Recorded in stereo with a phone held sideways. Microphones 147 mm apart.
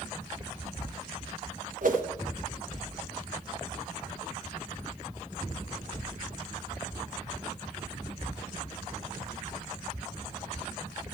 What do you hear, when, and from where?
1.8 s a whoosh: 65° right (ahead or behind), 1.1 m